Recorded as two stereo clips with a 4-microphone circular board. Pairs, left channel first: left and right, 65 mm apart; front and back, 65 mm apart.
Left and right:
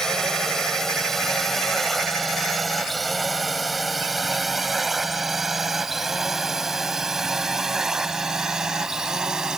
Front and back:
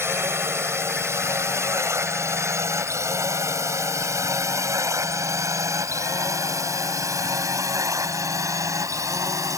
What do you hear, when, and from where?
0.0 s a drone: 170° left; by 9.6 s 165° right